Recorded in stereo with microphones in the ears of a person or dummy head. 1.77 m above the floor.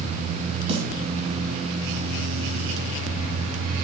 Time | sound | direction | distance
0.7 | a snare drum | 35° right (ahead or behind) | 2.5 m